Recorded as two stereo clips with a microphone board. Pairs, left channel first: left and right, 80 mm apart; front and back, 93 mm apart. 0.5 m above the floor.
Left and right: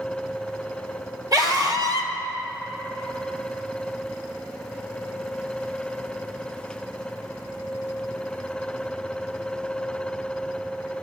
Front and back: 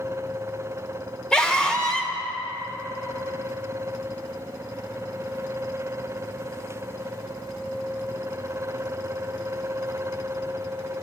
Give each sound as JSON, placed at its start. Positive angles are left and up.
{"t": 1.3, "sound": "a scream", "azimuth_deg": -80, "distance_m": 1.2}